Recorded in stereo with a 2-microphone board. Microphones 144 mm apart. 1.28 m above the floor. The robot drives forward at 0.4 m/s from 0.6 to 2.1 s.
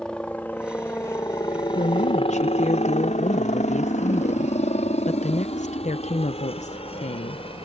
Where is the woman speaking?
65° left (ahead or behind); by 7.5 s 55° left (ahead or behind).